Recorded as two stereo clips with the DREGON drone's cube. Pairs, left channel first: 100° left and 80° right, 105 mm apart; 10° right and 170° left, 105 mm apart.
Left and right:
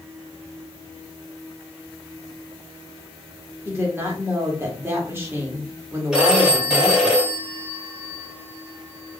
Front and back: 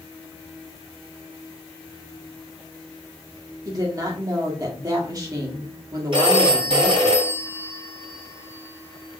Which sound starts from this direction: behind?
A phone ringing, at 6.1 s.